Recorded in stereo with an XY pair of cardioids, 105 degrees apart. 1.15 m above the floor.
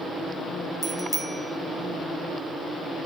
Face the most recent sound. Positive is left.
turn(degrees=-10)